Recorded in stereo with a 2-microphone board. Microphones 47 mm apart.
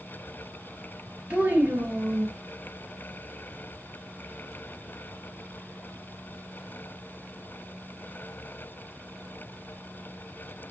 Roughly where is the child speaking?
Right.